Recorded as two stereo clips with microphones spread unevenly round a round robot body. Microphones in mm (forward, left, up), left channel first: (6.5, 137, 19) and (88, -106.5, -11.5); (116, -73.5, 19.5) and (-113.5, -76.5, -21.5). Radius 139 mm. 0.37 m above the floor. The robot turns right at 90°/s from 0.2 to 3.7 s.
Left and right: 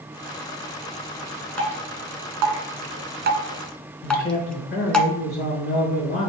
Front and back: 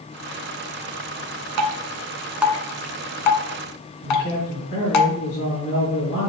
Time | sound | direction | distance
1.6 | dripping | 170° right | 1.0 m
4.0 | a man speaking | 55° left | 4.5 m